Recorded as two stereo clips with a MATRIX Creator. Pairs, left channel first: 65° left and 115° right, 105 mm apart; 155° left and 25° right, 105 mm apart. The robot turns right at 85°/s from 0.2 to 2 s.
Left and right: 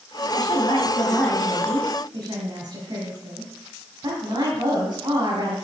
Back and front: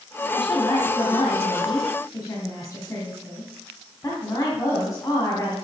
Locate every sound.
0.3 s a woman speaking: 70° left, 2.0 m; by 5.5 s 150° right, 2.0 m